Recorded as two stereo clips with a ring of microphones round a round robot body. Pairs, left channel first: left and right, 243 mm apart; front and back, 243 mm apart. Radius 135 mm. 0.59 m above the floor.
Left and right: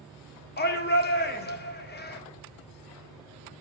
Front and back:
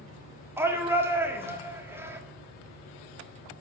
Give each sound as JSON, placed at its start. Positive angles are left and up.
{"t": 0.6, "sound": "a shout", "azimuth_deg": 105, "distance_m": 1.4}